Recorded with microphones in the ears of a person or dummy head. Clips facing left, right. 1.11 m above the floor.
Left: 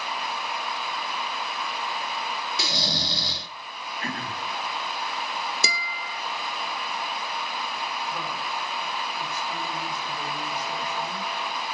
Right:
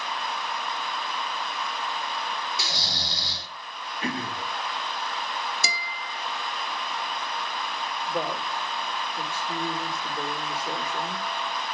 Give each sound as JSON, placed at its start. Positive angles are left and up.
{"t": 2.6, "sound": "snoring", "side_deg": 65, "distance_m": 1.8}
{"t": 4.0, "sound": "throat clearing", "side_deg": -15, "distance_m": 2.0}
{"t": 5.6, "sound": "a guitar", "side_deg": 65, "distance_m": 1.4}
{"t": 8.1, "sound": "a woman speaking", "side_deg": -30, "distance_m": 3.0}